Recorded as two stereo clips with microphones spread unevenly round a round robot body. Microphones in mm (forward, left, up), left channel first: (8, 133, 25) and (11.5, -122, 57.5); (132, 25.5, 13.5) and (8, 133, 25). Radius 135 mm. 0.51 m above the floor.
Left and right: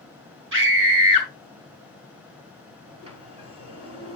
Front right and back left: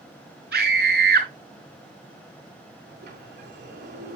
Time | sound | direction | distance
0.5 | a scream | 135° right | 5 m
2.9 | a sliding door | 160° right | 3 m